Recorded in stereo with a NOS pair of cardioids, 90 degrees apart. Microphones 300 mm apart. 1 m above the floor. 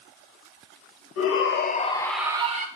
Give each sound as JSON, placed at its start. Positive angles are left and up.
{"t": 1.2, "sound": "a shout", "azimuth_deg": 55, "distance_m": 0.7}